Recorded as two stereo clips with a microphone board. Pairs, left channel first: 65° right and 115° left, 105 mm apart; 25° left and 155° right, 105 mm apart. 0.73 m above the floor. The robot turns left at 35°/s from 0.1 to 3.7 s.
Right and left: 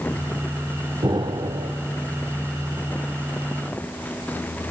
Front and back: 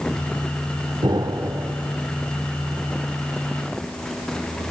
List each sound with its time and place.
1.0 s an explosion: 160° left, 0.7 m; by 1.7 s 135° left, 0.7 m